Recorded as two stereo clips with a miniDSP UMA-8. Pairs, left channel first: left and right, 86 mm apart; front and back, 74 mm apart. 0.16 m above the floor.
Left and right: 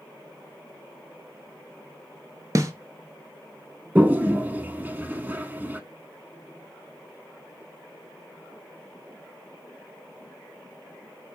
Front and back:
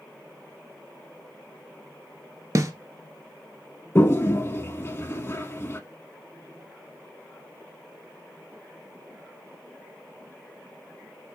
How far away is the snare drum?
About 0.8 m.